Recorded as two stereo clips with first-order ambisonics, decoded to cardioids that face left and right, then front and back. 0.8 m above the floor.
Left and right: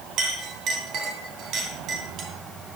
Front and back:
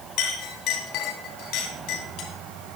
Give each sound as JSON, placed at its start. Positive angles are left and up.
{"t": 0.2, "sound": "a clink", "azimuth_deg": -40, "distance_m": 3.0}